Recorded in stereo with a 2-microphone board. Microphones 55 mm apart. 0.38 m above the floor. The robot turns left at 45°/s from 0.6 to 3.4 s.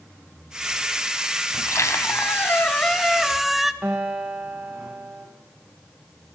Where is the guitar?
25° right (ahead or behind), 6.5 m.